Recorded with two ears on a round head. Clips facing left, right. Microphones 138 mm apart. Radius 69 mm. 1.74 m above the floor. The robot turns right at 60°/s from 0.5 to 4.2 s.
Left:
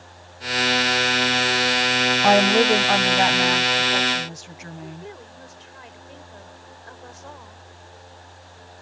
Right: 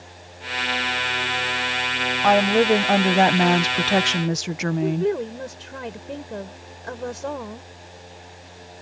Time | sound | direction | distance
2.2 | a woman speaking | 165° left | ?
4.8 | a woman speaking | 70° right (ahead or behind) | ?